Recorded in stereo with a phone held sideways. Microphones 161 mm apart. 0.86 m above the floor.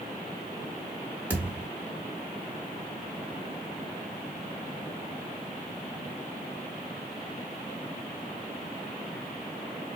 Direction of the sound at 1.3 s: 10° right (ahead or behind).